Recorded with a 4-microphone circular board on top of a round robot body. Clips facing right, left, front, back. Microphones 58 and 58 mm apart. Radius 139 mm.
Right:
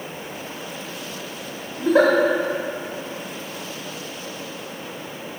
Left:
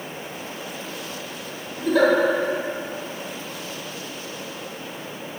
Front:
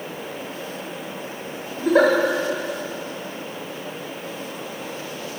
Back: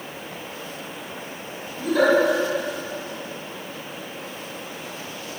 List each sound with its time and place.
1.8 s a giggle: 40° right, 2 m